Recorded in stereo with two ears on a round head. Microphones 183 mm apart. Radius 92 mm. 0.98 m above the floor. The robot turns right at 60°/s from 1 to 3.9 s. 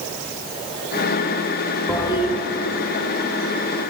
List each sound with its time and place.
1.9 s a toilet flushing: 10° left (ahead or behind), 2.5 m; by 2.4 s 40° left (ahead or behind), 2.5 m